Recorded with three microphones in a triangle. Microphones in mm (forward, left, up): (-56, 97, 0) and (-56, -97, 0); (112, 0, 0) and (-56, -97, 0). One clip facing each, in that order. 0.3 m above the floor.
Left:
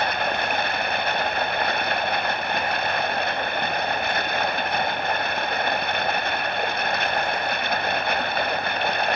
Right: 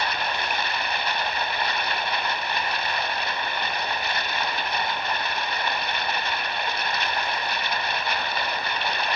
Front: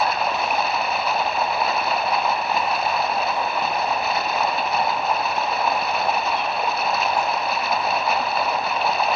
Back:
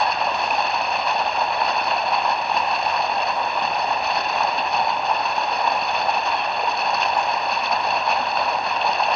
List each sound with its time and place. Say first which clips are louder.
0.0 s running water: left 4 dB, even; 120° left, 1.0 m